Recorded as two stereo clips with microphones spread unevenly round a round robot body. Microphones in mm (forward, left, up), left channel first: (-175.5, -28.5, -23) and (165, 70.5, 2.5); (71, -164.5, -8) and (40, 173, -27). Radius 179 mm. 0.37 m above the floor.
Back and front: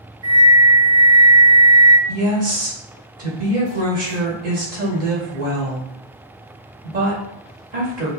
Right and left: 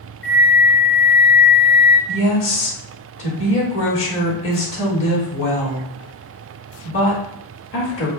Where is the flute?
5° right, 1.9 m.